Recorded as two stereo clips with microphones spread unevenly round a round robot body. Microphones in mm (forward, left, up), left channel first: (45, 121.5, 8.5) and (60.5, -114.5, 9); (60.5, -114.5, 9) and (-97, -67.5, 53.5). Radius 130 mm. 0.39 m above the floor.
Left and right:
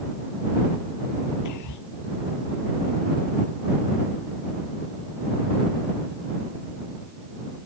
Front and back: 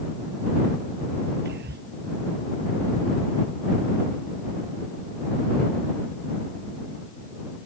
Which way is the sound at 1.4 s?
115° left.